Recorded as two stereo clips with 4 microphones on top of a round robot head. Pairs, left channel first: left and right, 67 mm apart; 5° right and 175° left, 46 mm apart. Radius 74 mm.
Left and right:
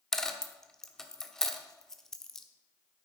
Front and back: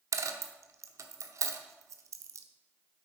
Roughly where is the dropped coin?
Behind.